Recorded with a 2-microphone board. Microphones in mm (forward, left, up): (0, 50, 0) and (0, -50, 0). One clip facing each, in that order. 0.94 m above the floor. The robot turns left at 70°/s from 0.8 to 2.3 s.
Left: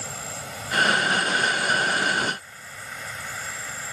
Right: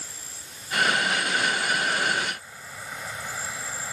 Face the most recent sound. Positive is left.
turn(degrees=-10)